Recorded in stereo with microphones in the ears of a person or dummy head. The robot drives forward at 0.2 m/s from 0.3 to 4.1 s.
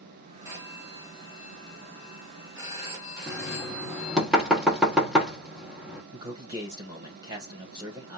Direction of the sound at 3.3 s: Centre (ahead or behind).